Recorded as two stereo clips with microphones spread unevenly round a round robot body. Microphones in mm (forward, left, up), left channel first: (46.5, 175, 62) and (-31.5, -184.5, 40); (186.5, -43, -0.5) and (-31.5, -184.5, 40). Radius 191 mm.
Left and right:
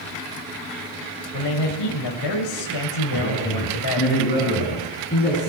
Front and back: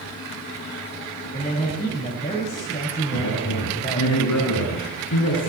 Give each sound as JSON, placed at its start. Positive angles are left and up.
{"t": 1.3, "sound": "a man speaking", "azimuth_deg": 110, "distance_m": 3.0}
{"t": 3.1, "sound": "a man speaking", "azimuth_deg": 15, "distance_m": 8.0}